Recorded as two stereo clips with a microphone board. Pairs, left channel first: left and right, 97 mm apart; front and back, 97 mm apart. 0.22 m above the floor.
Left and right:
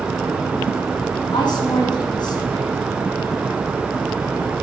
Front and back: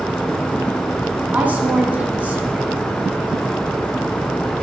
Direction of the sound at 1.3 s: 110° left.